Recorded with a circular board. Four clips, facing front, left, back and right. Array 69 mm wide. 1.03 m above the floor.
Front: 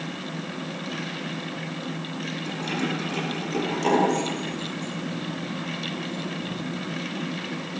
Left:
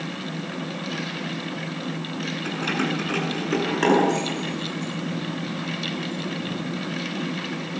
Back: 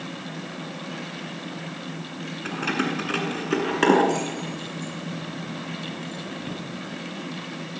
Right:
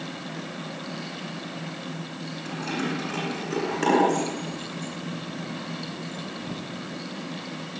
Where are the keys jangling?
150° left, 8.5 m; by 6.6 s 175° right, 12 m.